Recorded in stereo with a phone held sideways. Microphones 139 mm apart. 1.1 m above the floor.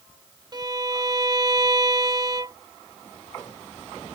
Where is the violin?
30° right (ahead or behind).